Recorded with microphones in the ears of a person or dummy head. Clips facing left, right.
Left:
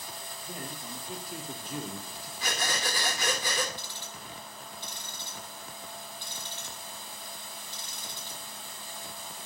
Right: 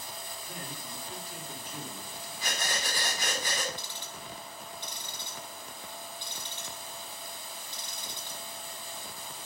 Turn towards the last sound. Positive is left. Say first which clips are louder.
# right 1 dB
turn(degrees=-20)  # may be behind; listen again after turning